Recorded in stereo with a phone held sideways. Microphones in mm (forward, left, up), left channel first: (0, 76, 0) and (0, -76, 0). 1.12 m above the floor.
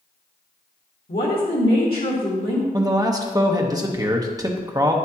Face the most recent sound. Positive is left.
turn(degrees=-25)  # may be behind; listen again after turning